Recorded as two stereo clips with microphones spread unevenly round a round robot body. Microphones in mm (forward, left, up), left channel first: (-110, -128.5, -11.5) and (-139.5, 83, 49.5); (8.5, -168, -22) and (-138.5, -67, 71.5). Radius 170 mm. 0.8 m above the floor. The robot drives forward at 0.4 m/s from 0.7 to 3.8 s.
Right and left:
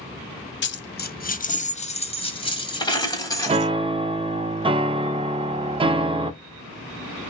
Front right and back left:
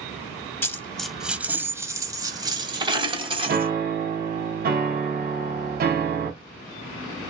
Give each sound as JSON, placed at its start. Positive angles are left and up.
{"t": 0.6, "sound": "a dropped coin", "azimuth_deg": -125, "distance_m": 0.7}
{"t": 3.5, "sound": "a piano", "azimuth_deg": 155, "distance_m": 0.5}